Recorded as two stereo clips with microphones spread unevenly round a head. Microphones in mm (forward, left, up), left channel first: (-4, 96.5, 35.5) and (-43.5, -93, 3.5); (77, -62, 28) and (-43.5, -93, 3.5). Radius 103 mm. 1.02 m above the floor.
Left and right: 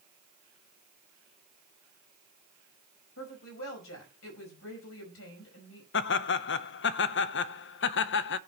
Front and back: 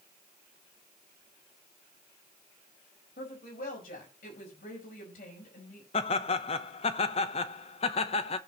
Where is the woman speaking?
50° left, 5 m.